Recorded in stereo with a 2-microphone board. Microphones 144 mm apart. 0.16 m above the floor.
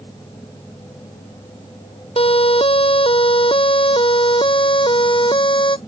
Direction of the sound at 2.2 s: 40° left (ahead or behind).